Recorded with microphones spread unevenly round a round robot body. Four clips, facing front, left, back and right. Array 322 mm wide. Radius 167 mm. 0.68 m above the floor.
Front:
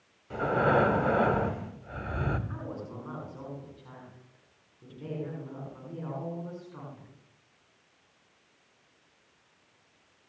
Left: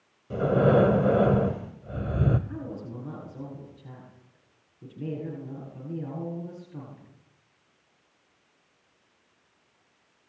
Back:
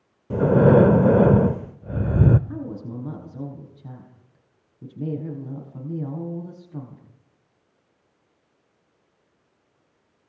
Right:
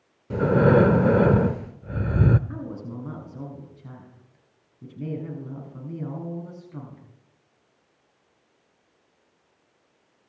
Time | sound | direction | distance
0.3 | breathing | 160° right | 0.7 m
2.5 | a woman speaking | 155° right | 7.5 m